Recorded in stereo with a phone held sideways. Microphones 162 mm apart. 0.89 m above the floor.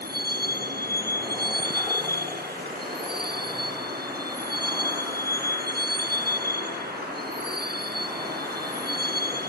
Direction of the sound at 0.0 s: 80° right.